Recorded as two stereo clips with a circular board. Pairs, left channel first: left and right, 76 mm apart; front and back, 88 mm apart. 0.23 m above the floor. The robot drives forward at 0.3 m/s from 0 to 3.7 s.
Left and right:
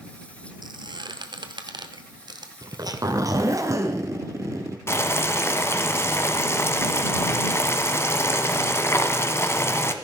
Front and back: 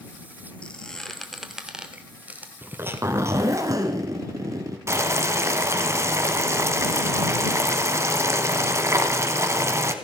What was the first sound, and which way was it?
A squeak, 75° right.